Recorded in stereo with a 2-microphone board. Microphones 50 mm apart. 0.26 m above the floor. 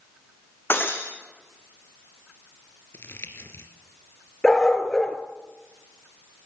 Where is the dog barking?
10° left (ahead or behind), 2.0 m.